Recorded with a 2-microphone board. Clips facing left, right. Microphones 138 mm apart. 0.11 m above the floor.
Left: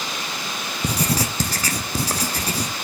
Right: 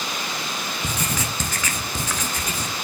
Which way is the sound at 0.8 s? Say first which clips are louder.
Left 7 dB; 35° left (ahead or behind).